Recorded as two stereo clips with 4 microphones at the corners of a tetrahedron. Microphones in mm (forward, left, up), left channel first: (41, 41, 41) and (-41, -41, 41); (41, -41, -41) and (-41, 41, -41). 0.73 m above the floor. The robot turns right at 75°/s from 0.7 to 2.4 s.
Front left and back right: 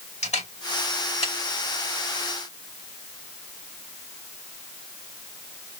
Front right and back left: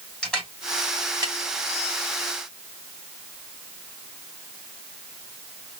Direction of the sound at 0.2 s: 40° left.